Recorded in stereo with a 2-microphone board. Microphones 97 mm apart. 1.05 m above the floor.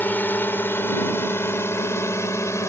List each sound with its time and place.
0.0 s a drone: 20° left (ahead or behind); by 2.7 s 30° left (ahead or behind)